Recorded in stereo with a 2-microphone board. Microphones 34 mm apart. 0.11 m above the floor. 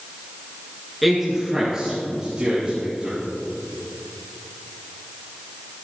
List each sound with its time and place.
1.0 s a man speaking: centre (ahead or behind), 1.6 m; by 3.2 s 30° right (ahead or behind), 4 m